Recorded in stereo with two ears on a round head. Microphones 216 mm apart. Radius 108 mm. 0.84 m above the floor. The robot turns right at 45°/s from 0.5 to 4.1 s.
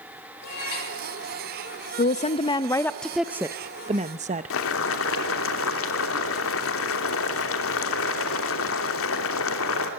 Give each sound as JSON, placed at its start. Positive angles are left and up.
{"t": 0.4, "sound": "a cat meowing", "side_deg": 75, "distance_m": 6.5}
{"t": 2.0, "sound": "a woman speaking", "azimuth_deg": 130, "distance_m": 0.5}
{"t": 4.5, "sound": "boiling", "side_deg": 60, "distance_m": 3.0}